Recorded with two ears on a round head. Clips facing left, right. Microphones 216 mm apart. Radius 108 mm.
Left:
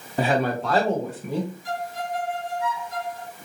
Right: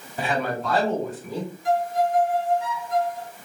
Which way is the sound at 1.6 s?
45° right (ahead or behind).